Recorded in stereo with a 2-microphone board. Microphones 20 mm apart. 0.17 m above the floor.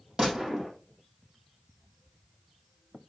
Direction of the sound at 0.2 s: 40° right (ahead or behind).